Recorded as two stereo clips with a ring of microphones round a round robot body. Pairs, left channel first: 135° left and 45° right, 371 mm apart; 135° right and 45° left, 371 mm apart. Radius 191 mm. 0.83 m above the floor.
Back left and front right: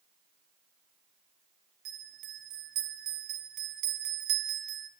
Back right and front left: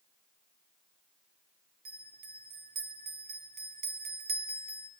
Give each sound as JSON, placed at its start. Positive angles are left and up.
{"t": 1.9, "sound": "a bell", "azimuth_deg": -20, "distance_m": 2.0}